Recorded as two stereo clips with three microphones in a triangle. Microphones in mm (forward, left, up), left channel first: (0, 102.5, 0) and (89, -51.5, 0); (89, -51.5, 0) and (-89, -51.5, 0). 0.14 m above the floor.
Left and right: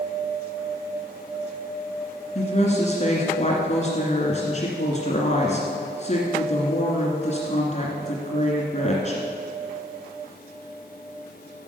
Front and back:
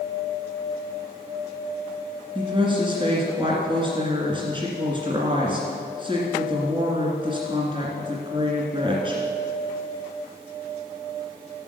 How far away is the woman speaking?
About 2 m.